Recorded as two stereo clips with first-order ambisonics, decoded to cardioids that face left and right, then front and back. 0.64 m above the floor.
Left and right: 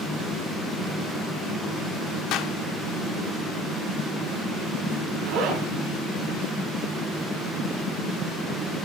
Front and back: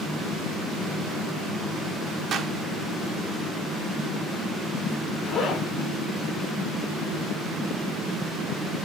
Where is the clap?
125° left, 1.3 m.